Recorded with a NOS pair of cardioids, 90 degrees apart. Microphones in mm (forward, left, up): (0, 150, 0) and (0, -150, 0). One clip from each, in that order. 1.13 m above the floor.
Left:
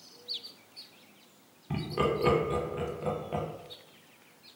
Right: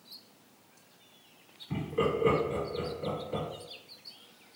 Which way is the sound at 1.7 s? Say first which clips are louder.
Even; 55° left.